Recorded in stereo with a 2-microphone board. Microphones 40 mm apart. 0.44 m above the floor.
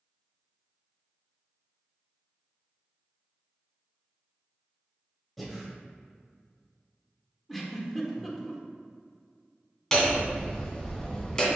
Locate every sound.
5.4 s breathing: centre (ahead or behind), 1.7 m
7.5 s a giggle: 5° left (ahead or behind), 1.3 m
9.9 s hammering: 15° left (ahead or behind), 2 m